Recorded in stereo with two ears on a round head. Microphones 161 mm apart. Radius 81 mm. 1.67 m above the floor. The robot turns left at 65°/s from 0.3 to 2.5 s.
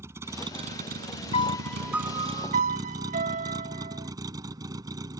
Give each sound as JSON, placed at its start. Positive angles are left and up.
{"t": 0.0, "sound": "a vehicle", "azimuth_deg": -15}
{"t": 1.3, "sound": "a piano", "azimuth_deg": 35}